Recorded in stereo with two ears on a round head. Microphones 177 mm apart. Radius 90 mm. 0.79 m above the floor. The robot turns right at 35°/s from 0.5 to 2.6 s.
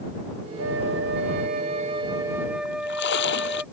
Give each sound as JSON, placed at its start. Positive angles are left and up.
{"t": 0.6, "sound": "a flute", "azimuth_deg": -75}
{"t": 2.6, "sound": "a splash", "side_deg": 65}